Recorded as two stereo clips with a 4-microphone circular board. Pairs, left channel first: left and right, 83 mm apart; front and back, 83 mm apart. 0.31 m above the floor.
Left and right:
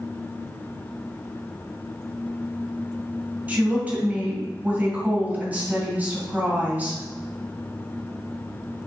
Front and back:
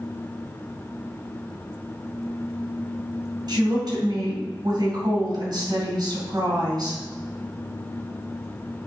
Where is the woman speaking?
160° right, 2.5 m.